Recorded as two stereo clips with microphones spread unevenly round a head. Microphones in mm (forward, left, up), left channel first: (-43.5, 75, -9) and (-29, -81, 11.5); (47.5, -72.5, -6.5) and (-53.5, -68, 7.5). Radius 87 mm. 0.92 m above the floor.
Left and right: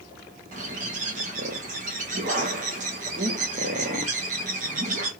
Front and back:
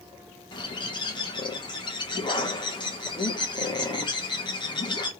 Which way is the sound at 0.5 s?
35° right.